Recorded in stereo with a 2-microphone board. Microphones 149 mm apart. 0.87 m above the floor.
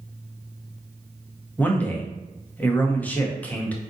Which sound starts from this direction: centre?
A man speaking, at 1.6 s.